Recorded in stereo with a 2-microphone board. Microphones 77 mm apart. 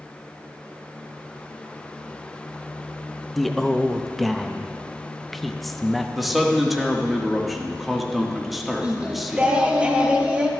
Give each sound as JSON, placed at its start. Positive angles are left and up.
{"t": 3.3, "sound": "a man speaking", "side_deg": 0, "distance_m": 0.7}
{"t": 6.2, "sound": "a man speaking", "side_deg": 0, "distance_m": 1.3}
{"t": 8.8, "sound": "singing", "side_deg": -15, "distance_m": 1.0}